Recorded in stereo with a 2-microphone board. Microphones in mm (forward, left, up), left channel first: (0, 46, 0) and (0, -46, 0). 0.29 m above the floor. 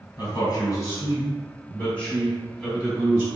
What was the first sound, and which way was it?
A man speaking, 45° left (ahead or behind).